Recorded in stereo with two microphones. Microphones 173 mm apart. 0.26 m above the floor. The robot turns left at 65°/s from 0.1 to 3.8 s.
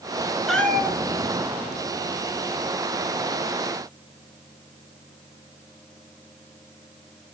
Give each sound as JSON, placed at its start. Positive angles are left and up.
{"t": 0.5, "sound": "a cat meowing", "azimuth_deg": 180, "distance_m": 1.5}